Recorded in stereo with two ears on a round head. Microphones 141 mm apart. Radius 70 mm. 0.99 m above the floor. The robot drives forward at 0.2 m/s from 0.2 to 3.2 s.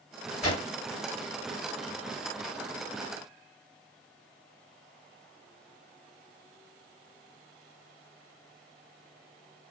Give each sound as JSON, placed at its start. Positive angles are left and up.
{"t": 0.4, "sound": "a whoosh", "side_deg": 40, "distance_m": 1.4}